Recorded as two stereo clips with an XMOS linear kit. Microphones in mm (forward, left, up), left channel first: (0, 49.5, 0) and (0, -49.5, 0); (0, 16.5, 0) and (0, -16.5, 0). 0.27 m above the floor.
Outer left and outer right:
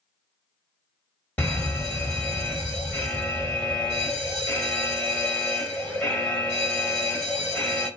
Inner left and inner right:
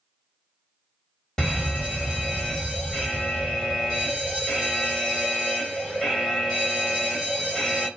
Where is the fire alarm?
20° left (ahead or behind), 1.8 m.